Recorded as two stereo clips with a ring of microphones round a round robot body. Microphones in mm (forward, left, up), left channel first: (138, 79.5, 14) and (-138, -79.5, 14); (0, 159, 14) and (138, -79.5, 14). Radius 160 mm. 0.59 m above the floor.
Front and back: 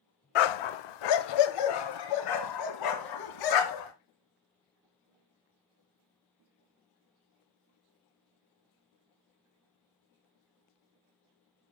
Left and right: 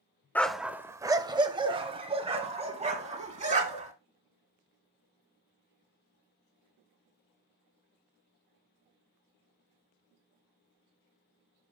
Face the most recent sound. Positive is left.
turn(degrees=5)